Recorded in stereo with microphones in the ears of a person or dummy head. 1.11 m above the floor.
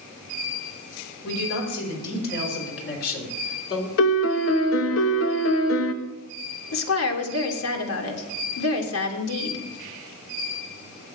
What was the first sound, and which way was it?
A man speaking, 65° left (ahead or behind).